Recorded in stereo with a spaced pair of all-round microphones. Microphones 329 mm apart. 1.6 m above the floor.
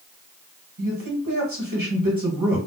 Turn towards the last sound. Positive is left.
turn(degrees=-85)